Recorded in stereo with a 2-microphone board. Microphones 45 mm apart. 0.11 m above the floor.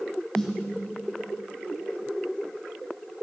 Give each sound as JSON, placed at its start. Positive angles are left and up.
{"t": 0.3, "sound": "a snare drum", "side_deg": 10, "distance_m": 3.5}